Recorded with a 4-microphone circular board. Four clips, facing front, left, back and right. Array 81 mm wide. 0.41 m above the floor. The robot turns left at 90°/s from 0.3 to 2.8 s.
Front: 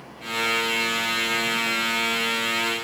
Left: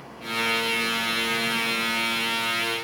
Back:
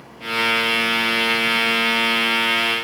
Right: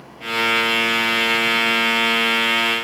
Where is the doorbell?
No doorbell in this recording.